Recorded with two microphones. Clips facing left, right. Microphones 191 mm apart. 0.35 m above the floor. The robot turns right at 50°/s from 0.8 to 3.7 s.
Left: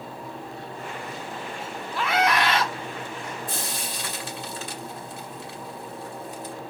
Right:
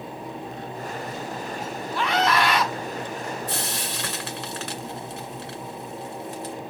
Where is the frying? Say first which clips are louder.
Right 2 dB; 70° right (ahead or behind), 2 m; by 6.5 s 80° right, 2 m.